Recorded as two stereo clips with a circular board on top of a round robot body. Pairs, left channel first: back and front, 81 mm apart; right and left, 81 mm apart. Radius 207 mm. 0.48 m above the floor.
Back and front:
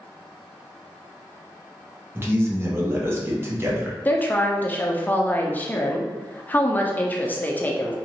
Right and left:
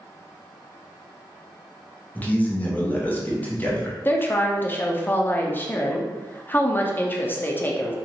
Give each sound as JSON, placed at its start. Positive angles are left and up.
{"t": 2.1, "sound": "a man speaking", "azimuth_deg": -35, "distance_m": 1.1}
{"t": 4.0, "sound": "a woman speaking", "azimuth_deg": -130, "distance_m": 0.8}